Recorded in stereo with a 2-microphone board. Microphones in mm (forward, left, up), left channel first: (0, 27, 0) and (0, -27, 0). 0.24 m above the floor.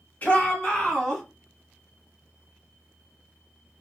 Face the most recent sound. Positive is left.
turn(degrees=10)  # may be behind; listen again after turning